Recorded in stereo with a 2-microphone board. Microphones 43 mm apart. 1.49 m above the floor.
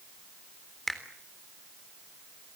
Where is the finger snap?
5° left (ahead or behind), 3.5 m.